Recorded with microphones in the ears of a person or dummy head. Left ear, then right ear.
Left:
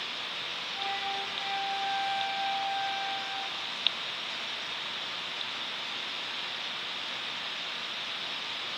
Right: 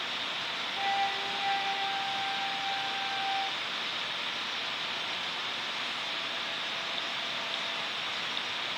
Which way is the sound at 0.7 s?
45° right (ahead or behind).